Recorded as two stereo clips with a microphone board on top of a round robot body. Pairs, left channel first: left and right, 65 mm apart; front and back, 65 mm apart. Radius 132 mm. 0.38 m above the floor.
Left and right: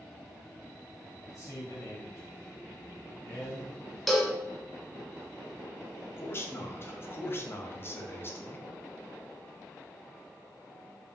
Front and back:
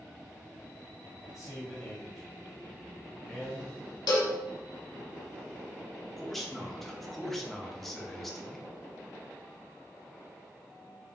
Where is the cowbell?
5° left, 0.6 m.